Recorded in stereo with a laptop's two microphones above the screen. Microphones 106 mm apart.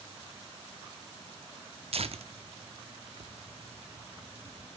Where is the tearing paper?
65° right (ahead or behind), 0.7 m.